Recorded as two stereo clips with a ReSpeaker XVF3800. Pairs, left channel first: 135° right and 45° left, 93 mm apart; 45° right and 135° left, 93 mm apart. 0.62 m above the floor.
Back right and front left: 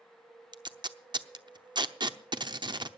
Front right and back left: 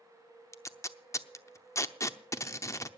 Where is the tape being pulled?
10° left, 0.7 m.